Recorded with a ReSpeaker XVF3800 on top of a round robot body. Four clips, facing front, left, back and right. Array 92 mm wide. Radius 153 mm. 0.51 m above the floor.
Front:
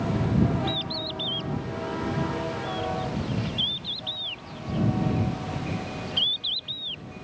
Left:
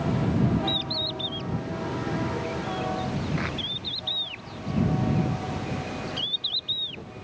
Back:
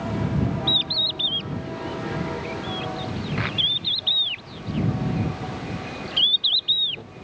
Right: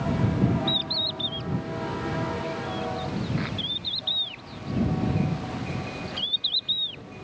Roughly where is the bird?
Behind.